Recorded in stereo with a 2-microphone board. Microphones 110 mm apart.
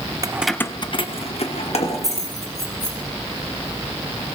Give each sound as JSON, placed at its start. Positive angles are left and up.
{"t": 0.2, "sound": "keys jangling", "side_deg": -30, "distance_m": 0.5}